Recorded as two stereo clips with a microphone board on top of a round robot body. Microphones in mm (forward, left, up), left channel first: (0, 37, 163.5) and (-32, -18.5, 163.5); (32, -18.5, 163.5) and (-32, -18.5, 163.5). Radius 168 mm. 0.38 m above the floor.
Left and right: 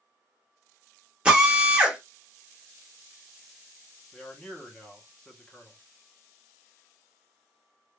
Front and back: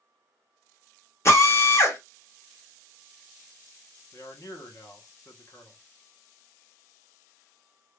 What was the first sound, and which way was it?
A drill, 45° right.